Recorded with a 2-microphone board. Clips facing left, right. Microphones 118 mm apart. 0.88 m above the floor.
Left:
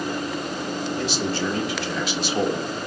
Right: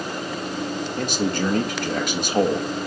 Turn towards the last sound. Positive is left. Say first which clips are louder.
# right 4 dB
turn(degrees=-50)  # may be behind; listen again after turning